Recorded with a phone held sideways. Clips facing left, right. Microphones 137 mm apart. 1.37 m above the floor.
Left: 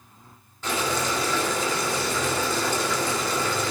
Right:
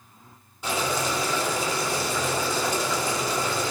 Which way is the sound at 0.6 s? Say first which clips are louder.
Even; 10° right (ahead or behind).